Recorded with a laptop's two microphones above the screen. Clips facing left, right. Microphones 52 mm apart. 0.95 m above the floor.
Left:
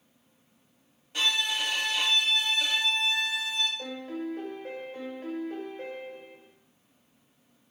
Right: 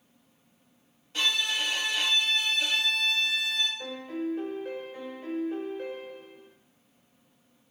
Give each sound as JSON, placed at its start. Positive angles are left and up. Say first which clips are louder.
{"t": 1.1, "sound": "a violin", "louder": "even", "side_deg": 10, "distance_m": 1.0}
{"t": 3.8, "sound": "a piano", "louder": "right 1 dB", "side_deg": 80, "distance_m": 1.3}